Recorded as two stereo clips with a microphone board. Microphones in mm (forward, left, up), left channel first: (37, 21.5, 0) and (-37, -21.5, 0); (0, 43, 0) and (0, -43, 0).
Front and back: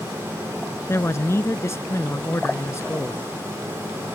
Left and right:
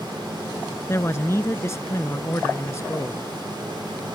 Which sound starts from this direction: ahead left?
A man speaking, at 0.9 s.